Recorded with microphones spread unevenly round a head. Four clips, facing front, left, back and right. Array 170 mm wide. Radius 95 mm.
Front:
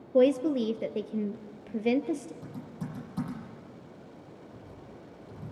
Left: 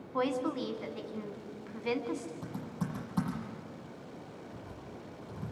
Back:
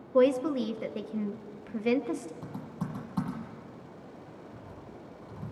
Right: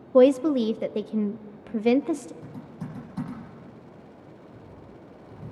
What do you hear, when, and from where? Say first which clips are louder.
0.1 s a woman speaking: right 14 dB, front 1 dB; 65° right, 0.8 m
2.4 s typing on a keyboard: even, back 2 dB; 160° left, 9.5 m